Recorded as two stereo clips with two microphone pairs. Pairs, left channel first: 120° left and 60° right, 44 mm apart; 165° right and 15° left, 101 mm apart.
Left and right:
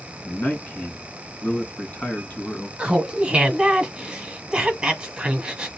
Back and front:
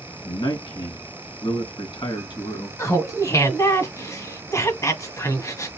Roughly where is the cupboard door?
No cupboard door in this recording.